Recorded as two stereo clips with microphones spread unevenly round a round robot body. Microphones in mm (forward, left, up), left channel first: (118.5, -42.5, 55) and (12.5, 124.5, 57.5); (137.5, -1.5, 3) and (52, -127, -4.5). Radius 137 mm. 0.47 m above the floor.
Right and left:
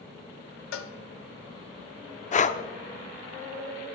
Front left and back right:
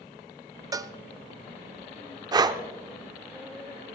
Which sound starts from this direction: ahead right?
A cowbell, at 0.7 s.